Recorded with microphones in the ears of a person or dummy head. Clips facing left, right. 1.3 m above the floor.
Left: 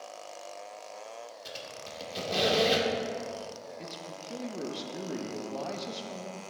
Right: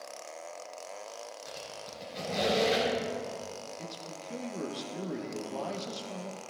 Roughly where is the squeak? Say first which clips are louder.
Even; left.